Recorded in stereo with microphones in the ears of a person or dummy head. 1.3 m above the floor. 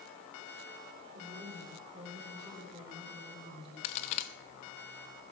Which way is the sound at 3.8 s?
45° left (ahead or behind).